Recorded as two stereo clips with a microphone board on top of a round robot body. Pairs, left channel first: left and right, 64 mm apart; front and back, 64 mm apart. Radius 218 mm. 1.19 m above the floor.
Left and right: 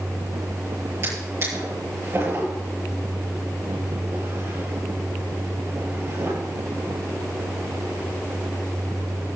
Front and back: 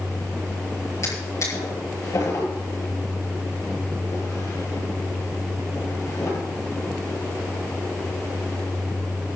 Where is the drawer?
40° right, 9 m.